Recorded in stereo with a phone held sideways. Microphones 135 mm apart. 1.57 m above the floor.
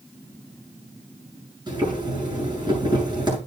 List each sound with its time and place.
1.7 s boiling: 35° right (ahead or behind), 8 m